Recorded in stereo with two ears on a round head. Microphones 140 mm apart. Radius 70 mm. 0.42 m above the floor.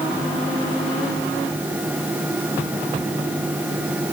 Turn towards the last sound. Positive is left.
No sound to turn to.